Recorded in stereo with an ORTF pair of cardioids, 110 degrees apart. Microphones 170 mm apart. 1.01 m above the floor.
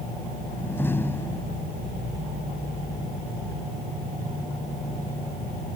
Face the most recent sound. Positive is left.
turn(degrees=15)